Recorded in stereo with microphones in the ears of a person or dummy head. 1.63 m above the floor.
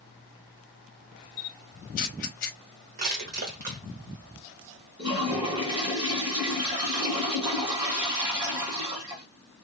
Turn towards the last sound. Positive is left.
turn(degrees=-25)  # may be behind; listen again after turning